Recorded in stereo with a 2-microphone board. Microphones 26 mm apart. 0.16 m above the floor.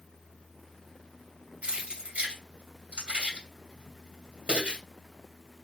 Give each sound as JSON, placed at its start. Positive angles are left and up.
{"t": 1.6, "sound": "keys jangling", "side_deg": -60, "distance_m": 2.5}